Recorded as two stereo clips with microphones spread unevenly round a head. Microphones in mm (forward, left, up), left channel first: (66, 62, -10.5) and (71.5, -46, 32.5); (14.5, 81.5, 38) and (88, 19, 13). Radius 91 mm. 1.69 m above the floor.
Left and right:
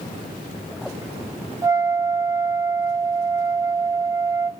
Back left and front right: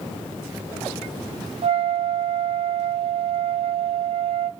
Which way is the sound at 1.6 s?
25° right.